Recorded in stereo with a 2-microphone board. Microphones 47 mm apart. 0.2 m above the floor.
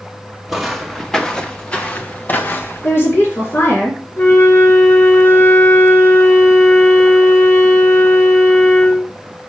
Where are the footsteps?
5° right (ahead or behind), 1.4 m; by 2.9 s 50° left (ahead or behind), 1.6 m.